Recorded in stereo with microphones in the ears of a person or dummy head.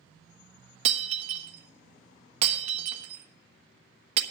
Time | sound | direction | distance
0.8 | breaking glass | 40° right (ahead or behind) | 1.2 m